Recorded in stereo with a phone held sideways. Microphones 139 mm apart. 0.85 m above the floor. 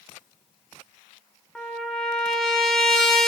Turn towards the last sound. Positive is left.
turn(degrees=5)  # may be behind; listen again after turning